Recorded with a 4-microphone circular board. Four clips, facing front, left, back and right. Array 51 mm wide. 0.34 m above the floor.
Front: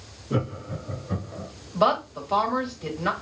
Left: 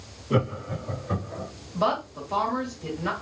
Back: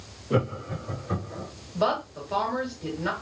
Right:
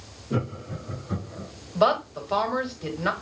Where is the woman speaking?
65° right, 1.5 m.